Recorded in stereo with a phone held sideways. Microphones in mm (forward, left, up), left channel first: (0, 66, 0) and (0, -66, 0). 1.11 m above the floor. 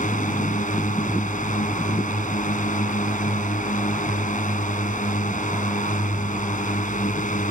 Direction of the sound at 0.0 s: 75° left (ahead or behind).